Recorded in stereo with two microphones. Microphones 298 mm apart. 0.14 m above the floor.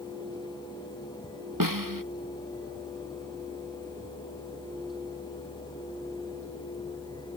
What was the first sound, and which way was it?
A snare drum, 85° right.